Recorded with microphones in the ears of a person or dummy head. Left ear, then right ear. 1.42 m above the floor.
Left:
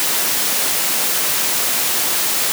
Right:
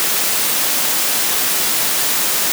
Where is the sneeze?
I don't hear a sneeze.